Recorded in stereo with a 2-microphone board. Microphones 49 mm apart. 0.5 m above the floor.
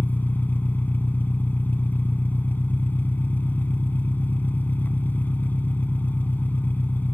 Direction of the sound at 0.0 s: 40° left (ahead or behind).